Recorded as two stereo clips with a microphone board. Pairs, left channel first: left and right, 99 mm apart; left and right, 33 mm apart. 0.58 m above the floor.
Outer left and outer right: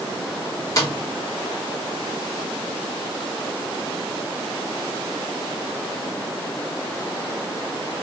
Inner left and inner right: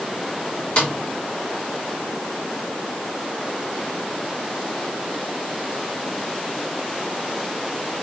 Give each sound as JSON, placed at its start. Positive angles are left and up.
{"t": 0.8, "sound": "a snare drum", "side_deg": 35, "distance_m": 1.3}